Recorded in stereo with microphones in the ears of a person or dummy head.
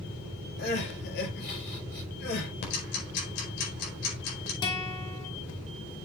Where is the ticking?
65° left (ahead or behind), 4.5 m.